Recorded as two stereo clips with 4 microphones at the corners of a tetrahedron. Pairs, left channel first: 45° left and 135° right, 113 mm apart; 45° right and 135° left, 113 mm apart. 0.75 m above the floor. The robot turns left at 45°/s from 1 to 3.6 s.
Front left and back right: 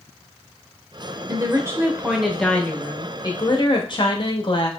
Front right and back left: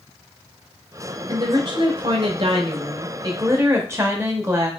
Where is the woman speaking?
Straight behind, 0.9 m; by 4.7 s 75° left, 0.9 m.